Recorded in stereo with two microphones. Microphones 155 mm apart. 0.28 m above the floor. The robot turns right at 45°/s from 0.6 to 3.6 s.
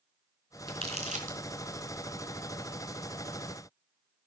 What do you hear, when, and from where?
0.7 s crumpling: 35° right (ahead or behind), 3.5 m; by 1.4 s 60° right (ahead or behind), 3.5 m